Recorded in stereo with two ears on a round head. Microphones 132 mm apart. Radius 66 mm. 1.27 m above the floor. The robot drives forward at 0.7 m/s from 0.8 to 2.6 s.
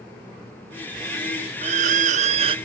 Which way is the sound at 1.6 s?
45° right (ahead or behind).